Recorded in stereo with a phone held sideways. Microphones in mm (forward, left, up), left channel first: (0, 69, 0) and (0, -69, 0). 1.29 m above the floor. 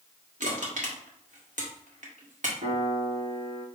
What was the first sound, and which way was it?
Crushing, 65° right (ahead or behind).